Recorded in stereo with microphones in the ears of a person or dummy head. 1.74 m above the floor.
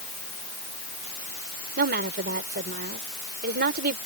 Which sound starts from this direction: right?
A woman speaking, at 1.8 s.